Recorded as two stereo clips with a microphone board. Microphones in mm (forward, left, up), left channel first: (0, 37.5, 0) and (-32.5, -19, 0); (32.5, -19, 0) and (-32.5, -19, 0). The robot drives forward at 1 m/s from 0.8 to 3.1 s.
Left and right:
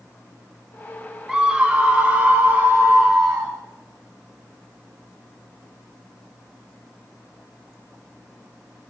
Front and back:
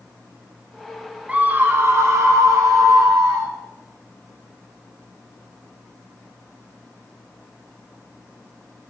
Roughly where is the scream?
Behind.